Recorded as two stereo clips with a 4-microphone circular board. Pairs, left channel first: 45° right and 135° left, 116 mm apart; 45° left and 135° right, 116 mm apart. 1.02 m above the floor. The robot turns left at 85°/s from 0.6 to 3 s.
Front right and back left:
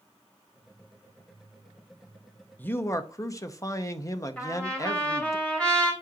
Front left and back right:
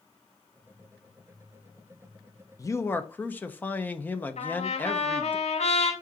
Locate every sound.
2.6 s a man speaking: 15° left, 0.7 m; by 5.4 s 20° right, 0.7 m
4.4 s a trumpet: 35° left, 3.5 m